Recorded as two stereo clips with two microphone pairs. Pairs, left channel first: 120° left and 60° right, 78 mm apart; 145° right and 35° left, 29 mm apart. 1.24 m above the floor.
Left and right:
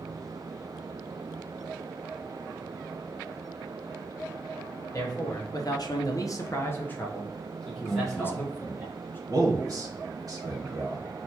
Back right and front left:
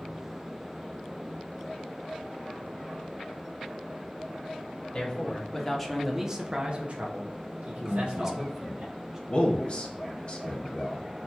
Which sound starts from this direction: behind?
A man speaking, at 4.9 s.